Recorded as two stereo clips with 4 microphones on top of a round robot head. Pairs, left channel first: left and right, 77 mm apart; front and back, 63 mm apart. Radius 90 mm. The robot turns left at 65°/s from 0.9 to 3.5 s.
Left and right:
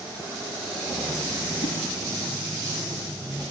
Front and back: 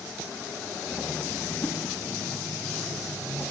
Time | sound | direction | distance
1.6 | a whoosh | 70° left | 1.6 m